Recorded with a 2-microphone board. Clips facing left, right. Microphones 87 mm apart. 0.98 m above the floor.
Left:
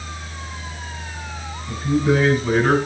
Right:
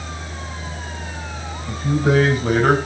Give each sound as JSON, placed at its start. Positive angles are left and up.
{"t": 1.7, "sound": "a man speaking", "side_deg": -65, "distance_m": 5.0}